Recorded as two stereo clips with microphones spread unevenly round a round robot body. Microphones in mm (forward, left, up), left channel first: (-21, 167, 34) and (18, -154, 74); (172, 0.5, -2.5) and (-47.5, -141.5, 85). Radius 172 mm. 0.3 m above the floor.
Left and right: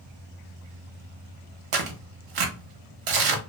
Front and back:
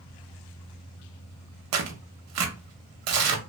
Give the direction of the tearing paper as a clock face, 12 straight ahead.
4 o'clock.